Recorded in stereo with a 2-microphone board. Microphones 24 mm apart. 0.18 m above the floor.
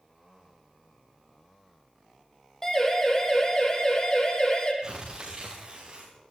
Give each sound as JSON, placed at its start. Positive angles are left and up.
{"t": 2.6, "sound": "a siren", "side_deg": 25, "distance_m": 6.5}
{"t": 4.8, "sound": "tearing paper", "side_deg": -30, "distance_m": 6.5}